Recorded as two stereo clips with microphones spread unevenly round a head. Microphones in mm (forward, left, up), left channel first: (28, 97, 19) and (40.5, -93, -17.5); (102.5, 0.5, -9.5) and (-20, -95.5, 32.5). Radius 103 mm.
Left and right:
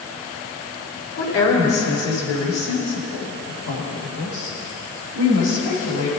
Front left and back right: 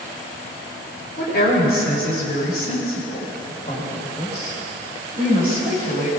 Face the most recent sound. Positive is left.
turn(degrees=110)